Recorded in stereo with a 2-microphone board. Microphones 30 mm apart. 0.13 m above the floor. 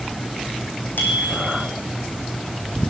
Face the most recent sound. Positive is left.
turn(degrees=75)  # may be behind; listen again after turning